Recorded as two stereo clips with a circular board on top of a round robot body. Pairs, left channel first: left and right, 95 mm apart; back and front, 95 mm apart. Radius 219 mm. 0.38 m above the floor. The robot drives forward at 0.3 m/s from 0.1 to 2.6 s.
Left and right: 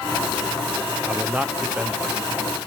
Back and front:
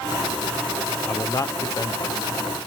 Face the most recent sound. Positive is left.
turn(degrees=-165)